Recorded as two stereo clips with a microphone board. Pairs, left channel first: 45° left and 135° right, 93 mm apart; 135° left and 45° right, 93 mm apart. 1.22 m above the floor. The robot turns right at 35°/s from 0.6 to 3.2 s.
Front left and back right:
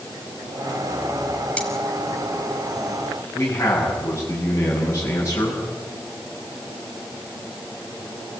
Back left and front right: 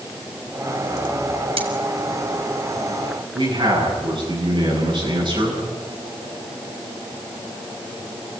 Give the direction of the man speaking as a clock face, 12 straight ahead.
1 o'clock.